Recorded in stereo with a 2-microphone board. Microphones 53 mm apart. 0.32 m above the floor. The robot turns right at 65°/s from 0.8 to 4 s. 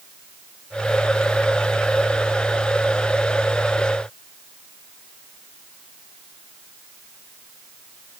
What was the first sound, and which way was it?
Only background noise.